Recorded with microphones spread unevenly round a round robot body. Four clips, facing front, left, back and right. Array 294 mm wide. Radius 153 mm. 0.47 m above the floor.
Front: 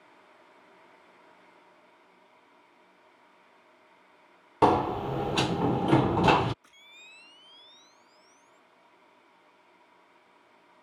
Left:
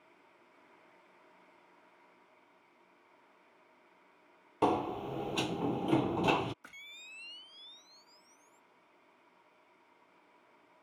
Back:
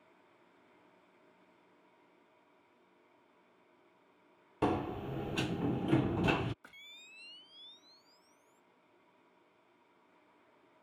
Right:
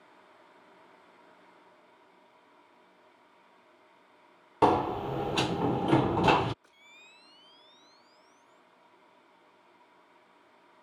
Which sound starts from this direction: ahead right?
A sliding door, at 4.6 s.